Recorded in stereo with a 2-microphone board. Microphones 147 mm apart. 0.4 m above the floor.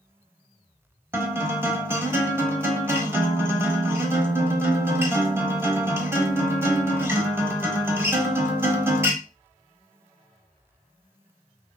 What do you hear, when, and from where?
1.1 s a guitar: 15° right (ahead or behind), 0.9 m